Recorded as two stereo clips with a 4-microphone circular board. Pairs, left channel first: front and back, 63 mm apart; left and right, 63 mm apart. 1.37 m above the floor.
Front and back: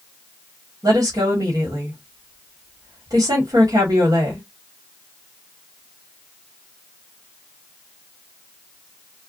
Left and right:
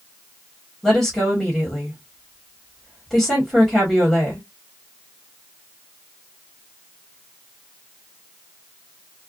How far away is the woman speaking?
About 1.4 m.